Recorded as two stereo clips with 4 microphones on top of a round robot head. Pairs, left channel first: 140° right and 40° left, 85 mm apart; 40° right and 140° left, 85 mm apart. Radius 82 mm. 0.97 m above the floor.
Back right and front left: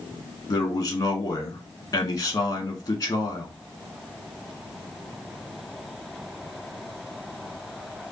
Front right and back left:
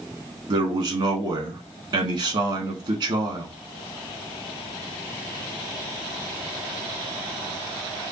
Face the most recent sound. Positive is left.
turn(degrees=170)